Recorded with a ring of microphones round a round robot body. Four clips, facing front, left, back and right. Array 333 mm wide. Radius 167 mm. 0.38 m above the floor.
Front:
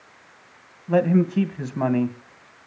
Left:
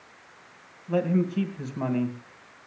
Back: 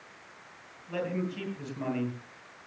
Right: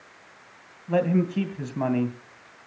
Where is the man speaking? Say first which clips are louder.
Right 2 dB, front 13 dB; 25° right, 2.5 m.